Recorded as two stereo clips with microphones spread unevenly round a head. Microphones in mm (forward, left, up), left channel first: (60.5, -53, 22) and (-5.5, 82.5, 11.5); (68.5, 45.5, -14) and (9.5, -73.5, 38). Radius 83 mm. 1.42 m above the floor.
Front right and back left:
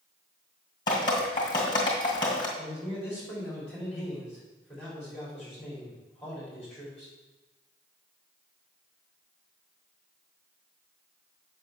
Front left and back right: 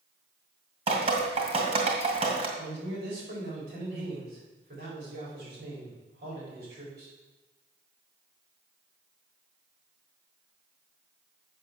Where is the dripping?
125° right, 2 m.